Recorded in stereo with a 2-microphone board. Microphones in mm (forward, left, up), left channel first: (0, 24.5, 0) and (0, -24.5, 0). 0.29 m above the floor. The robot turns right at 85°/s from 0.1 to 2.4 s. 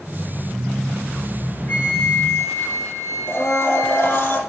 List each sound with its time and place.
1.7 s a flute: 35° left, 2.5 m; by 4.3 s 100° left, 2.5 m
3.3 s a blender: 55° left (ahead or behind), 4 m